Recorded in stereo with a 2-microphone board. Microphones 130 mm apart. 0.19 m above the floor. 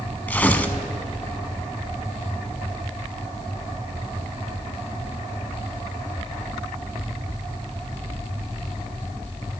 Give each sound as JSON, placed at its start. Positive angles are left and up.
{"t": 0.3, "sound": "tearing paper", "side_deg": 15, "distance_m": 0.6}